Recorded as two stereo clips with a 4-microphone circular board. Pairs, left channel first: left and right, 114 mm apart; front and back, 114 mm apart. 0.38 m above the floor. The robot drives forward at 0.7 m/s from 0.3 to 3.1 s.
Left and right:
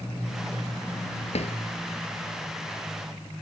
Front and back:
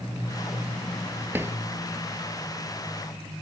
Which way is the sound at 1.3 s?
110° left.